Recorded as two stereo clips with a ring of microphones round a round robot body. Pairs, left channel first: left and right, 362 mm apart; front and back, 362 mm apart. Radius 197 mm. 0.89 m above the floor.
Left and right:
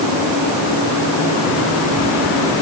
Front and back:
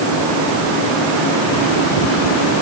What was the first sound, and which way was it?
Only background noise.